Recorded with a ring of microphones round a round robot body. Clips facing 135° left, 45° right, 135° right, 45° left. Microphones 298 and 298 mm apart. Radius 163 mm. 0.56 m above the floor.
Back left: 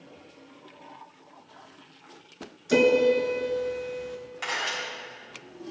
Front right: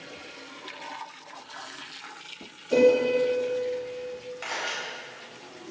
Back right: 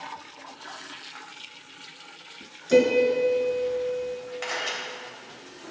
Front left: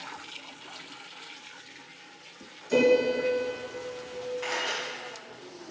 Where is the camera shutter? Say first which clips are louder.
Back left 1 dB, even; 140° right, 4 m.